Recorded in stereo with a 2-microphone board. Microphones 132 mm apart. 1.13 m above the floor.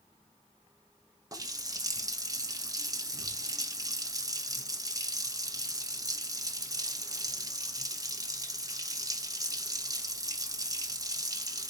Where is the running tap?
25° right (ahead or behind), 0.7 m.